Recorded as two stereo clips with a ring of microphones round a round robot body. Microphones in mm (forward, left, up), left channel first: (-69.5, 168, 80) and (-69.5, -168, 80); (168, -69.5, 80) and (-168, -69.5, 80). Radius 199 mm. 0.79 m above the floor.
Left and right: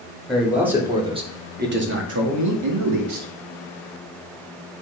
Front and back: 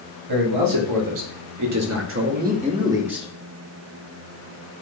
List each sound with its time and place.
0.3 s a man speaking: straight behind, 3 m; by 3.3 s 90° right, 2.5 m